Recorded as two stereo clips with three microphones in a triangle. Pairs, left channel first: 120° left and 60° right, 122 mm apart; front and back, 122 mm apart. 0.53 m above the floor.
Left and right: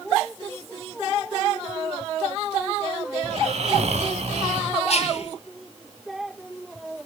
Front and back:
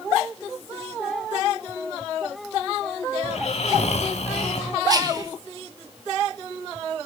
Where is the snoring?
30° right, 1.1 m.